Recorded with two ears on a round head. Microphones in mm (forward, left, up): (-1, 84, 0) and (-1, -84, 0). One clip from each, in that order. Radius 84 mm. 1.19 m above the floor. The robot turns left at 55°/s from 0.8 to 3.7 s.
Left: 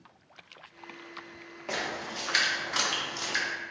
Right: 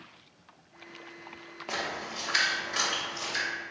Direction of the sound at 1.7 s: 10° right (ahead or behind).